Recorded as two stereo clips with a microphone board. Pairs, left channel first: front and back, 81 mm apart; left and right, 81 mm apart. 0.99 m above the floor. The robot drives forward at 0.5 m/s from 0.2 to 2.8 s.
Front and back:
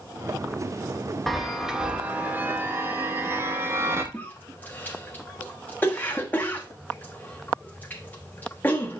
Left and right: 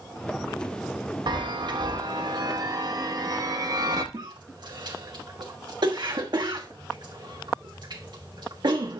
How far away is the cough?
About 1.2 m.